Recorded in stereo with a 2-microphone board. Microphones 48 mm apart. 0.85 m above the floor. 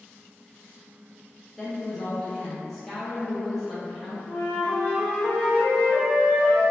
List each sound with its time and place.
1.6 s a woman speaking: 5° left (ahead or behind), 0.6 m
4.3 s a flute: 25° left (ahead or behind), 1.7 m